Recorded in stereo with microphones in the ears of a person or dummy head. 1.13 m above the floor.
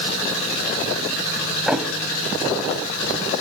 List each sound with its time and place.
1.7 s a thud: centre (ahead or behind), 1.3 m